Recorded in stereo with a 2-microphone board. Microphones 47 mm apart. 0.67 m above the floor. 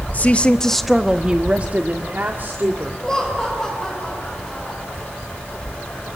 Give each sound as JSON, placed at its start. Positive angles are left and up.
{"t": 0.1, "sound": "a woman speaking", "side_deg": 35, "distance_m": 1.1}
{"t": 3.0, "sound": "laughter", "side_deg": 10, "distance_m": 3.0}